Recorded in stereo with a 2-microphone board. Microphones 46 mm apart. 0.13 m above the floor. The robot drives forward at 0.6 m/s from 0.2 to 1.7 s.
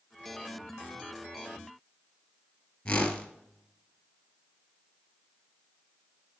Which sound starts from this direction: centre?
A whoosh, at 2.9 s.